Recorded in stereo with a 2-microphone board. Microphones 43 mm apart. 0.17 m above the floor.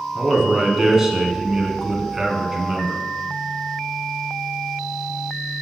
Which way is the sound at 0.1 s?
10° right (ahead or behind).